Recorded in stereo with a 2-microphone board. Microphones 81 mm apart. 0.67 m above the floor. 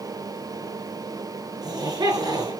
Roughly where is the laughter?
Right.